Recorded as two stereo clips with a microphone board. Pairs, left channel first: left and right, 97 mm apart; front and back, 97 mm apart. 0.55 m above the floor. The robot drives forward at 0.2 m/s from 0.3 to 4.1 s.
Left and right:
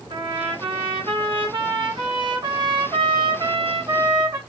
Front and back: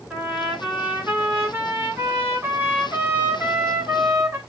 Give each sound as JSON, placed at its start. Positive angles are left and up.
{"t": 0.1, "sound": "a trumpet", "azimuth_deg": -100, "distance_m": 2.5}